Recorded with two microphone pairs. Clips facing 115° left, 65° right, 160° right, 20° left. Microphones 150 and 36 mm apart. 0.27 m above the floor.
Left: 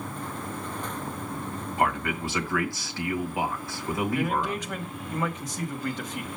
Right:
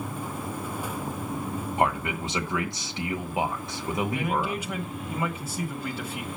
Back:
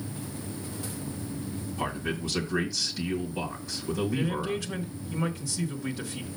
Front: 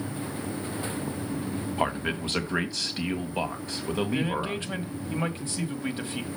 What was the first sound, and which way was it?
A man speaking, 5° right.